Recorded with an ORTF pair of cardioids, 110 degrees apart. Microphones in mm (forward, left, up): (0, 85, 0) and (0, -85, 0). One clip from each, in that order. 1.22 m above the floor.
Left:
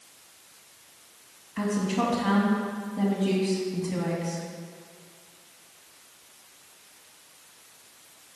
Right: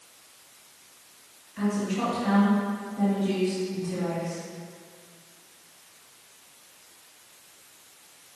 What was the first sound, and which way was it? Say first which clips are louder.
A woman speaking: left 1 dB; 40° left.